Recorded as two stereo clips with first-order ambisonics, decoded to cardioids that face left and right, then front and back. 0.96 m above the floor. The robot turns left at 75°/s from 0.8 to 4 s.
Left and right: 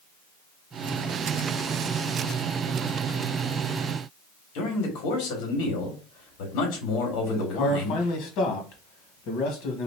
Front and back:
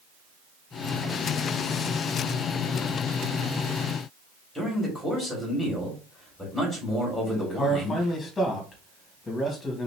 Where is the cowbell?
No cowbell in this recording.